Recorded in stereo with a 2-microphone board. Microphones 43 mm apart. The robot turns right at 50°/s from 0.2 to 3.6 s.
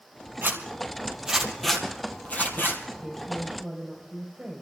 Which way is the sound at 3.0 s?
30° left (ahead or behind).